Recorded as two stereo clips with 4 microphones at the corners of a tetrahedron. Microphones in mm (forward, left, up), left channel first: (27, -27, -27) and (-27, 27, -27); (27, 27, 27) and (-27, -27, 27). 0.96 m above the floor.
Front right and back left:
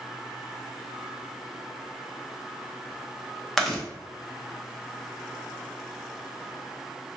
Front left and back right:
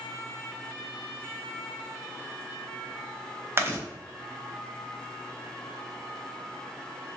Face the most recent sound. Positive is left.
turn(degrees=-135)